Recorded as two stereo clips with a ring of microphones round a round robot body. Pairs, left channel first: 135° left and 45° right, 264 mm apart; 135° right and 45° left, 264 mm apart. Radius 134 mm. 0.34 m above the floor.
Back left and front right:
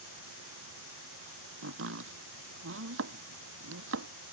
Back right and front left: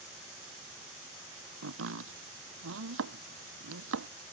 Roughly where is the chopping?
Ahead.